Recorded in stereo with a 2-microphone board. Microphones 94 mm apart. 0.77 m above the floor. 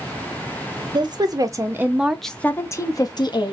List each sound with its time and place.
0.9 s a woman speaking: 50° right (ahead or behind), 0.8 m; by 3.5 s 55° left (ahead or behind), 0.8 m